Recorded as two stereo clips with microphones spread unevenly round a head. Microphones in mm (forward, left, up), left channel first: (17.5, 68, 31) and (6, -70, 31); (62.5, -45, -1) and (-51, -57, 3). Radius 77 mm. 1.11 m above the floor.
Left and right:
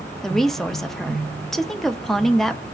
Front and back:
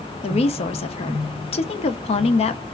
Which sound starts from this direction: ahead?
A woman speaking, at 0.2 s.